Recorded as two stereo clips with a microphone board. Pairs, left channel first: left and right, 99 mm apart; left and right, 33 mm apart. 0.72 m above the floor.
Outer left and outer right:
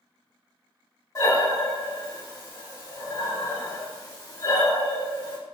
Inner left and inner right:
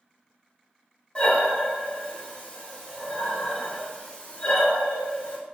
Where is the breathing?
35° left (ahead or behind), 1.3 m.